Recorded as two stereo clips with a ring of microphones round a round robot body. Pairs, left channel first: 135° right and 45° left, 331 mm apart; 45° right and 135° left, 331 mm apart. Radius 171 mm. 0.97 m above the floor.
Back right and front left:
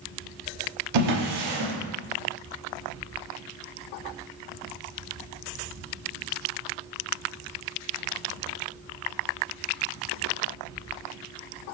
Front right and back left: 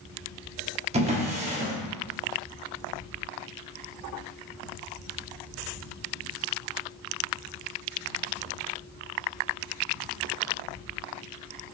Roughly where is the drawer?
Ahead left.